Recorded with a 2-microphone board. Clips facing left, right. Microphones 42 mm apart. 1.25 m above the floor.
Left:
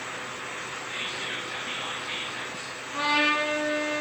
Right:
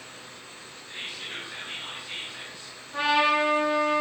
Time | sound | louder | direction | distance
0.9 | whispering | left 2 dB | 85° left | 1.1 m
2.9 | a trumpet | right 2 dB | 5° right (ahead or behind) | 3 m